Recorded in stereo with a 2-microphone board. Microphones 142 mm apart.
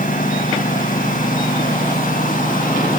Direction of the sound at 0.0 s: 70° left (ahead or behind).